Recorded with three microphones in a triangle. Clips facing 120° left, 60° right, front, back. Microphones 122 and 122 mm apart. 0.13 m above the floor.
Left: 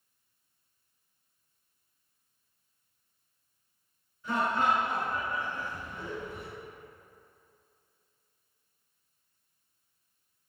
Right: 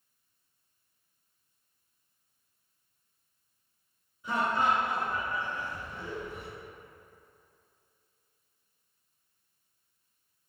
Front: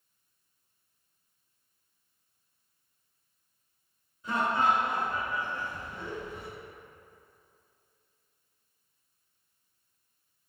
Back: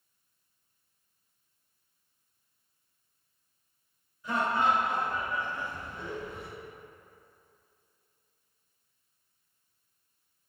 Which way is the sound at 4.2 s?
10° right.